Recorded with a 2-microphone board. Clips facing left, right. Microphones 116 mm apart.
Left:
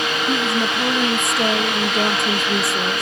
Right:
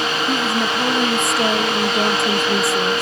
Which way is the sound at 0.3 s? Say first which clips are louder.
Even; centre (ahead or behind).